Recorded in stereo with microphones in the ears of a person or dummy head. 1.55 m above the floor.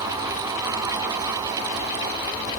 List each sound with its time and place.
Only background noise.